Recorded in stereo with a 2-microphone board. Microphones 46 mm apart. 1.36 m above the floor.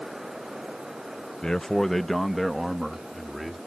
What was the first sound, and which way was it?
A man speaking, 15° left (ahead or behind).